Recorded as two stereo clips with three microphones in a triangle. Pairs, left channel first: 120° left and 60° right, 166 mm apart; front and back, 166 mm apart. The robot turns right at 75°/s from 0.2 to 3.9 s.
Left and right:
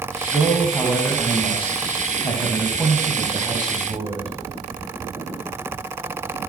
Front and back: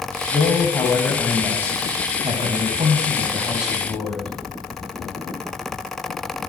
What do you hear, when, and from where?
0.3 s a man speaking: 15° left, 1.7 m; by 4.3 s 75° right, 1.7 m